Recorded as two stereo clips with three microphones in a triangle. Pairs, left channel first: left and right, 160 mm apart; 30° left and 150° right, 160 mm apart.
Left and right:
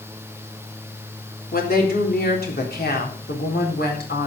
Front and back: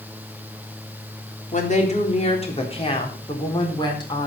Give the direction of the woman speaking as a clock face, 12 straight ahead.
10 o'clock.